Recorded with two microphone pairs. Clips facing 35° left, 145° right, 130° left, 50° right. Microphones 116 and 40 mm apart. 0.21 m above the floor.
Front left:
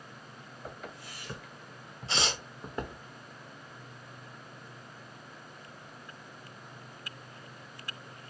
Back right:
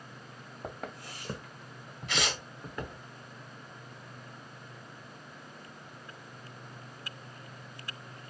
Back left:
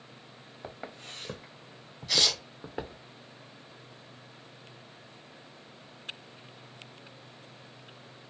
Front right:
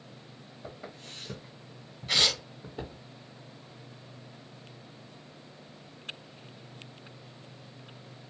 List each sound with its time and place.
0.6 s footsteps: 175° right, 1.1 m; by 3.0 s 95° left, 1.1 m
2.1 s tearing paper: 10° right, 0.9 m